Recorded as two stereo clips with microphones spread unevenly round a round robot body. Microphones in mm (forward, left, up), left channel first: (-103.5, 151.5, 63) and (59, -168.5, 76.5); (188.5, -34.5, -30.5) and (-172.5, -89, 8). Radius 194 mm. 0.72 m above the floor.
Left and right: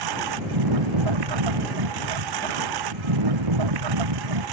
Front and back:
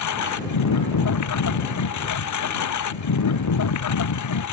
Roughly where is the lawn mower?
Ahead right.